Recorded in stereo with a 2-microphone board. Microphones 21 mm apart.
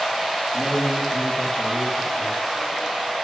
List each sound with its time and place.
0.5 s a man speaking: 70° left (ahead or behind), 3 m; by 2.4 s 75° left (ahead or behind), 4 m